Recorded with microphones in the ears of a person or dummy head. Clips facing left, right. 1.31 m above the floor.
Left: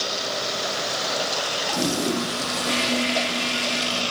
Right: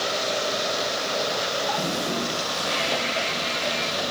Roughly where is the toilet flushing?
Left.